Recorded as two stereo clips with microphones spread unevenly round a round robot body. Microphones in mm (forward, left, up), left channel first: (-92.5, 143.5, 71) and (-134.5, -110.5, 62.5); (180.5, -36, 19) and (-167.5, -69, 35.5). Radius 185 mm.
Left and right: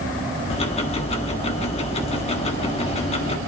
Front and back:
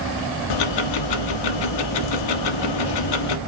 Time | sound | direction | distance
0.5 | ticking | 10° left | 1.3 m